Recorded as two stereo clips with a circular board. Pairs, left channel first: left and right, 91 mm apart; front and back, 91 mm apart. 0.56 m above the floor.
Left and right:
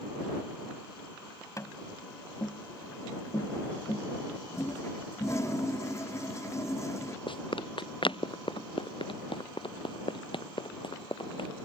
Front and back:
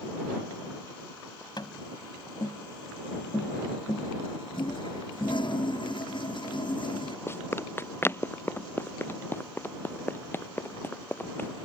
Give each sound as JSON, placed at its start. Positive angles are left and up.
{"t": 1.6, "sound": "tapping", "azimuth_deg": 35}
{"t": 4.5, "sound": "a toilet flushing", "azimuth_deg": 30}
{"t": 7.3, "sound": "running footsteps", "azimuth_deg": 65}